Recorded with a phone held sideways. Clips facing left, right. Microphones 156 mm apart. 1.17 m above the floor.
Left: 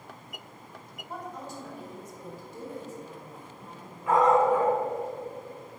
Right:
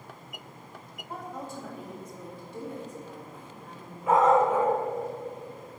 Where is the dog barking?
25° right (ahead or behind), 1.7 m.